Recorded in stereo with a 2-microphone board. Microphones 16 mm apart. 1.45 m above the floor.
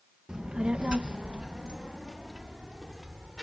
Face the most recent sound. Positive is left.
turn(degrees=-25)  # may be behind; listen again after turning